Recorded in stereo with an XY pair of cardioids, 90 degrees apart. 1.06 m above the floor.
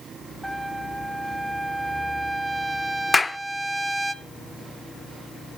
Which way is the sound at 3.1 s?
25° left.